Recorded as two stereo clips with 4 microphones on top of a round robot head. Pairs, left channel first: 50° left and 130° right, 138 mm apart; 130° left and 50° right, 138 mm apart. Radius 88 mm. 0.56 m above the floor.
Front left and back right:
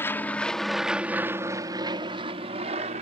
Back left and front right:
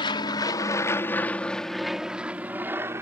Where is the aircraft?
110° left; by 3.0 s 115° right.